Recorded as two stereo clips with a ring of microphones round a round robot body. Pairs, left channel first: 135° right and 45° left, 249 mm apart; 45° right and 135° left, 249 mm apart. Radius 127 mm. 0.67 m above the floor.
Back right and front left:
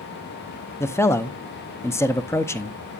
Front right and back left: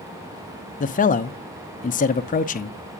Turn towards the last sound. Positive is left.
turn(degrees=-65)